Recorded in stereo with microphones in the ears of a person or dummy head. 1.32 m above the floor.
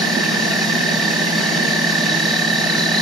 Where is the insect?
5° right (ahead or behind), 1.7 m.